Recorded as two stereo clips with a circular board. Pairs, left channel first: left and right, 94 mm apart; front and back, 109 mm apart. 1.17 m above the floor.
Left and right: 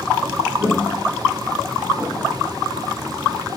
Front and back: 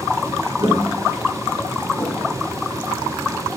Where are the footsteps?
150° left, 1.3 m; by 2.3 s 5° left, 1.5 m.